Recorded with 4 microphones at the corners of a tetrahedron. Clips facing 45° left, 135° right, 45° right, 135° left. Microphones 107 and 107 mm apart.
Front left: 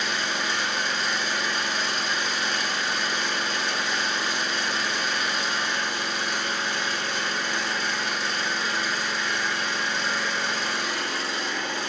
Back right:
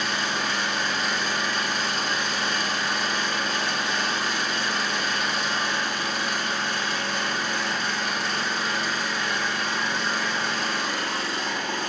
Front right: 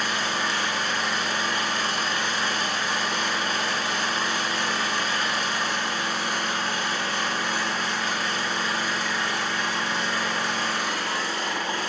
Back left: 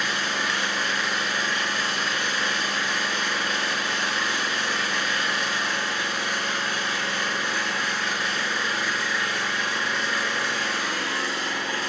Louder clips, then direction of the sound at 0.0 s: Back right 1 dB, front right 1 dB; 105° right.